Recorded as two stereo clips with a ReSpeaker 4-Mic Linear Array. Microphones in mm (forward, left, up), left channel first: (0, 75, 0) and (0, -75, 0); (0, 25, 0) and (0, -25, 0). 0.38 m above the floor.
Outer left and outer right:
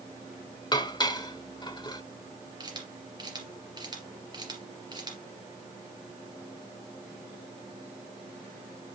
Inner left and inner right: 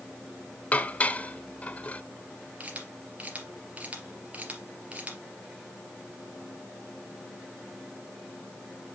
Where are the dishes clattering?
30° left (ahead or behind), 0.8 m.